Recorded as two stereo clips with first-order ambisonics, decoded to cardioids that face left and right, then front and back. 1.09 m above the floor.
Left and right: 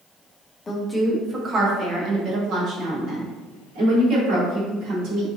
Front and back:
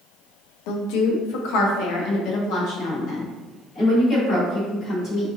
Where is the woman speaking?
15° left, 0.7 m; by 5.3 s 55° right, 3.5 m.